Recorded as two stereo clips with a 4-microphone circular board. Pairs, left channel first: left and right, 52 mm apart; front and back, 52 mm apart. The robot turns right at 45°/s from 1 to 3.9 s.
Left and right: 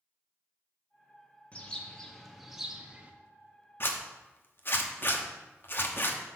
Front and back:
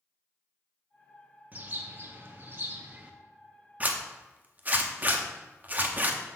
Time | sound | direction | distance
1.5 | a bird | 140° left | 0.8 m
3.8 | a zipper | 125° left | 0.8 m